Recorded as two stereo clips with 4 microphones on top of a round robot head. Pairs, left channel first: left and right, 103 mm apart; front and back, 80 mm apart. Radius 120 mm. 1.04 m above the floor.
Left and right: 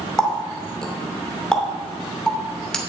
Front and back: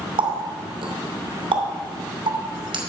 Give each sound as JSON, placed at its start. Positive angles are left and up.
{"t": 0.2, "sound": "a running tap", "azimuth_deg": 170, "distance_m": 2.5}